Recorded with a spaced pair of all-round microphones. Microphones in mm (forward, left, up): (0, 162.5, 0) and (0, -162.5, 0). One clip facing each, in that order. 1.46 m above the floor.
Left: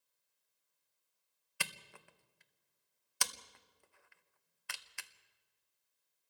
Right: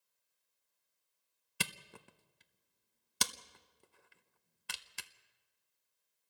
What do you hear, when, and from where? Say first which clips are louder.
1.6 s a camera shutter: right 5 dB; 45° right (ahead or behind), 0.8 m